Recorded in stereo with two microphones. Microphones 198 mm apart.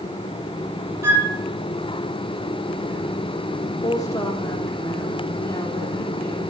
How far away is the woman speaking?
About 7 m.